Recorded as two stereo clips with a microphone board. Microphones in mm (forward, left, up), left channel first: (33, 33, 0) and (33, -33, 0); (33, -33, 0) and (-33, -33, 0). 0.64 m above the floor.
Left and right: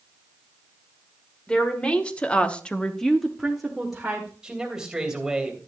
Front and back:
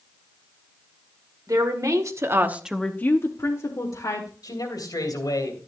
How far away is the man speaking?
About 3 m.